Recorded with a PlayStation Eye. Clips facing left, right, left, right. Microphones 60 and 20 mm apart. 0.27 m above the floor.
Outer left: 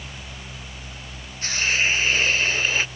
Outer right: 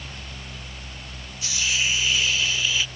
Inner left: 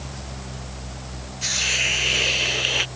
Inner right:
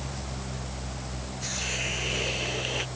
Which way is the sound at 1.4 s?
45° left (ahead or behind).